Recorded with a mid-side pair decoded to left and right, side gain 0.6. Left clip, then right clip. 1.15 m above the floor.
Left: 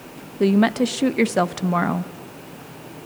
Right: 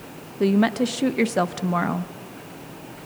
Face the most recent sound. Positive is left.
turn(degrees=10)